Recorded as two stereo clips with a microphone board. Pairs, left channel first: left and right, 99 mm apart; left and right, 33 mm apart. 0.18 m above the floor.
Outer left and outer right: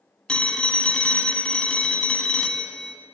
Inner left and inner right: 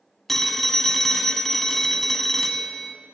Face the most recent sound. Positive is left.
turn(degrees=10)  # may be behind; listen again after turning